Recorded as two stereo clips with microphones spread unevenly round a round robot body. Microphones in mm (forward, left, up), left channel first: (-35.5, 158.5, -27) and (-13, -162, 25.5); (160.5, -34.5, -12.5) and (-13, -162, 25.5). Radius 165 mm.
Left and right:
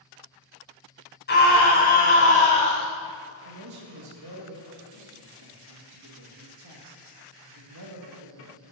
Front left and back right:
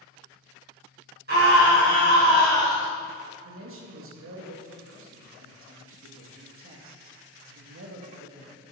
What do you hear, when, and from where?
1.3 s a scream: 155° left, 4.5 m; by 2.9 s 165° left, 4 m
3.4 s a man speaking: 125° right, 2 m